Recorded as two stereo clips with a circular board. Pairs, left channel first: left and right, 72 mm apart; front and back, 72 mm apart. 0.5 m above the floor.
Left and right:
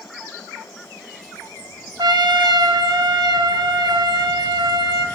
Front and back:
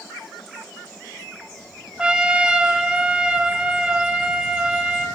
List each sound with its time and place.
2.0 s a trumpet: 105° right, 0.6 m